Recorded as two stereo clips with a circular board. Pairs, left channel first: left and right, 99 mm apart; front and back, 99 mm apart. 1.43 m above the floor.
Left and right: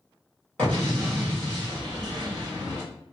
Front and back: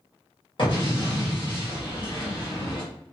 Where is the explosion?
15° left, 1.7 m.